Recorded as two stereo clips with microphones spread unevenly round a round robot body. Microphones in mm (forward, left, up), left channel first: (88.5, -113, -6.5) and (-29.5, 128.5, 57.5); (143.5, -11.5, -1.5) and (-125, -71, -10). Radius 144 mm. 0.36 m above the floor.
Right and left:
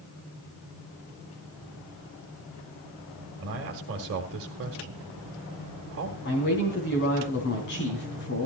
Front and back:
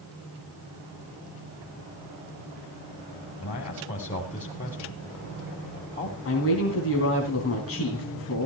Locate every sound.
3.4 s a man speaking: 75° left, 2.0 m
6.2 s a woman speaking: 25° right, 3 m